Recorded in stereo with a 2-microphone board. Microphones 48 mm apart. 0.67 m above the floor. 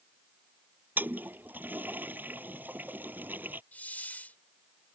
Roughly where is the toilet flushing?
Right.